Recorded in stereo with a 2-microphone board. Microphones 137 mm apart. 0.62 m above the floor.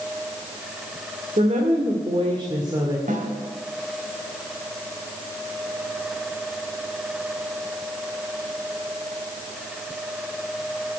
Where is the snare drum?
75° right (ahead or behind), 3 m.